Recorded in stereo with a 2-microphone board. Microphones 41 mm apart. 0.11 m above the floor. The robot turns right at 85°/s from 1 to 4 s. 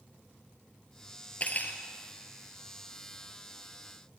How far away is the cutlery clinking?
About 1.4 m.